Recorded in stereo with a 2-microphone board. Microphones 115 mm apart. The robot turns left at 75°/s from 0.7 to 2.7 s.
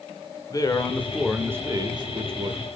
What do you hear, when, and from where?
0.5 s a man speaking: 40° left, 1.1 m; by 2.6 s 105° right, 1.1 m